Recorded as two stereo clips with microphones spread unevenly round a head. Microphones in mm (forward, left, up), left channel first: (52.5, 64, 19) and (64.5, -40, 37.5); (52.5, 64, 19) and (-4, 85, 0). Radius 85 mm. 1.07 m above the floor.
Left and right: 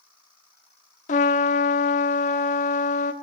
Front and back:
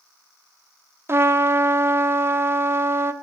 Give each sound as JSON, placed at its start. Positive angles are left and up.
{"t": 1.1, "sound": "a trumpet", "azimuth_deg": 105, "distance_m": 0.7}